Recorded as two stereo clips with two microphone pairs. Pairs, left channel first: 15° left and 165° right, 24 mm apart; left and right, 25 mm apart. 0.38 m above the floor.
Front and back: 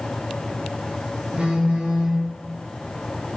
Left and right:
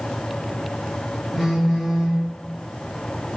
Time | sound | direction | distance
1.3 | a phone buzzing | 170° left | 1.1 m